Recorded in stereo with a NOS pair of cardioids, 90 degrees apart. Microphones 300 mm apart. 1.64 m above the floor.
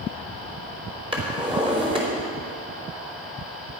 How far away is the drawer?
About 3.5 m.